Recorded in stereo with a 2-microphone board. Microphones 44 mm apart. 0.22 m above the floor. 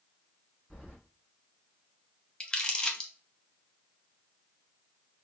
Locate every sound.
0.7 s keys jangling: 5° right (ahead or behind), 2 m
2.4 s crumpling: 20° left (ahead or behind), 0.7 m